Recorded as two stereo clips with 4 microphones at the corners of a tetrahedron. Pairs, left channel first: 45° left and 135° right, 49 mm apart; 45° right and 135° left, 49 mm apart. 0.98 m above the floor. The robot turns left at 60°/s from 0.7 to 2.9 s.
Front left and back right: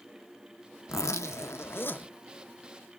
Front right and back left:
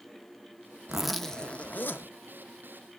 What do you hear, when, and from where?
0.9 s a zipper: 60° left, 0.7 m; by 2.1 s 10° right, 0.7 m